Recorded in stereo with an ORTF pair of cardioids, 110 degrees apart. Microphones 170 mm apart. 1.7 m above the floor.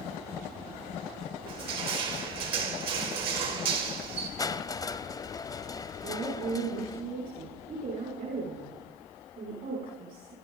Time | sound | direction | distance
1.5 | crushing | 70° right | 5 m
4.4 | crushing | 20° left | 0.7 m
6.0 | a woman speaking | 60° right | 7 m